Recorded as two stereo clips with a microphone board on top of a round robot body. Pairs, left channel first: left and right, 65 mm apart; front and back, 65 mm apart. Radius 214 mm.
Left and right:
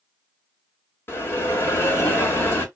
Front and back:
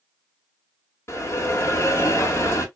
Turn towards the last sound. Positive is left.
turn(degrees=45)